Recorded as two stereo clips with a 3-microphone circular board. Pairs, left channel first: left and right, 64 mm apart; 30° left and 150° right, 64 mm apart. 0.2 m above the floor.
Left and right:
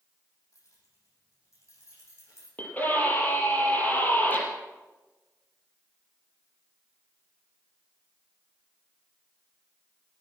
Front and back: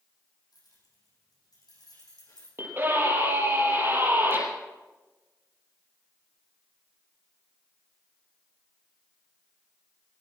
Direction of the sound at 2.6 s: 155° left.